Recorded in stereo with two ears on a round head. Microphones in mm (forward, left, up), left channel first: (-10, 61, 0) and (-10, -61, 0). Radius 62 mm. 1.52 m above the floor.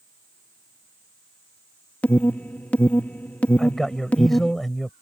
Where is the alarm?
10° left (ahead or behind).